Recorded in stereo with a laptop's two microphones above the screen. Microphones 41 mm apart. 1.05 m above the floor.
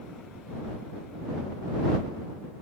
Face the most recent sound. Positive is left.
No sound to turn to.